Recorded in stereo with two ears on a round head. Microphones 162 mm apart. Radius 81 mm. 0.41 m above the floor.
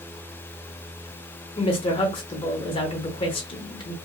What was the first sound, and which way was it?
A woman speaking, 30° left (ahead or behind).